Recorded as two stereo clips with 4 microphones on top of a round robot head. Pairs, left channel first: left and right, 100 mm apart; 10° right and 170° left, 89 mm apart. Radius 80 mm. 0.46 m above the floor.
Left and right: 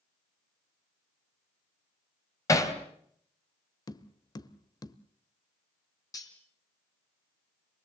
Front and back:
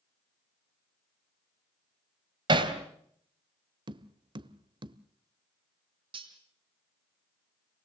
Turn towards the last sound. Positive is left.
turn(degrees=145)